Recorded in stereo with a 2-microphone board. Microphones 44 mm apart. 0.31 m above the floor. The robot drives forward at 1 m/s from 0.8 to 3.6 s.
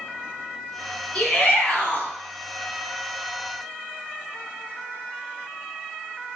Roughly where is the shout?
Left.